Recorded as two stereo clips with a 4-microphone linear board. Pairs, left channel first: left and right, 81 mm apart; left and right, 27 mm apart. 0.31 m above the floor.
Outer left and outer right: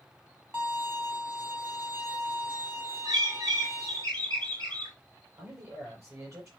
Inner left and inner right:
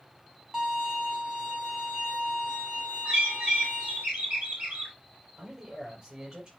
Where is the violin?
30° right (ahead or behind), 3 m.